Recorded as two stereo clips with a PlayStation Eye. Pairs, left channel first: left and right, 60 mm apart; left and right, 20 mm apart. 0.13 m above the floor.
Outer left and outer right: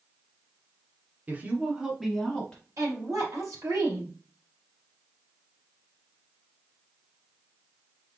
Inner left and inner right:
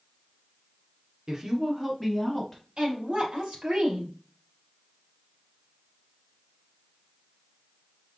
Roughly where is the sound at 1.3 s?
Right.